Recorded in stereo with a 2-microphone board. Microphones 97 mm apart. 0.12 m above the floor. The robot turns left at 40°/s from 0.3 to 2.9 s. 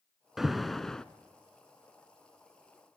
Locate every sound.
0.4 s an alarm: 5° right (ahead or behind), 0.9 m; by 1.1 s 5° left (ahead or behind), 0.9 m